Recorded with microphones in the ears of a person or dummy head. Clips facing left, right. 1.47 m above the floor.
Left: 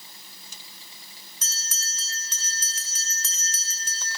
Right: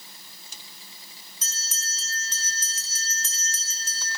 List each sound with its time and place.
1.4 s a bell: 50° left (ahead or behind), 2.0 m